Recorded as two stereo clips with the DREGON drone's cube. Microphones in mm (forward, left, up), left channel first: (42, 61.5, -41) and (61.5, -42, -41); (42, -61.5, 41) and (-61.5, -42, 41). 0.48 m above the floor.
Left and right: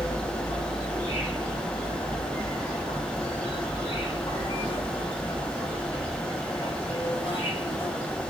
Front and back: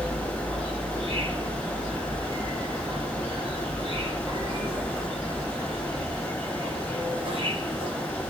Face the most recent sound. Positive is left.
turn(degrees=130)